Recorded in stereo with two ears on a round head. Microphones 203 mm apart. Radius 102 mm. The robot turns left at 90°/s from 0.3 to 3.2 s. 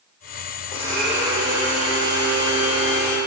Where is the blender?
30° left, 3 m; by 3.2 s 170° left, 3 m.